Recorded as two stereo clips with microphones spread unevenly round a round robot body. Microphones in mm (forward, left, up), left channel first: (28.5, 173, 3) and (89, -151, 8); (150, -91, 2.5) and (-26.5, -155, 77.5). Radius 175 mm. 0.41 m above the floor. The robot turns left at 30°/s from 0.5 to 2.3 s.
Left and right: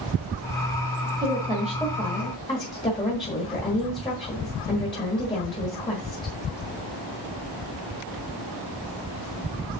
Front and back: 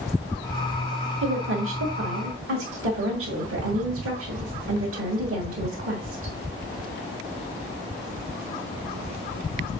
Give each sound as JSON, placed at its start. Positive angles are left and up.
{"t": 1.2, "sound": "a woman speaking", "azimuth_deg": -155, "distance_m": 1.4}